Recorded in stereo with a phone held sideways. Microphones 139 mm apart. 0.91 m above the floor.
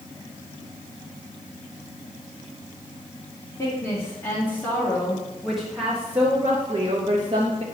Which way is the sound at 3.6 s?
25° left (ahead or behind).